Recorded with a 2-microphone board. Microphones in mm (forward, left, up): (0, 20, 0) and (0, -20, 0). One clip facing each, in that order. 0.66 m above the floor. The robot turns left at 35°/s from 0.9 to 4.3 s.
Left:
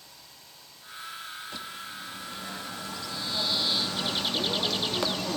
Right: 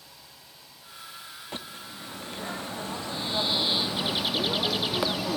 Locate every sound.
1.5 s a bird: 70° right, 0.9 m; by 5.4 s 170° right, 0.9 m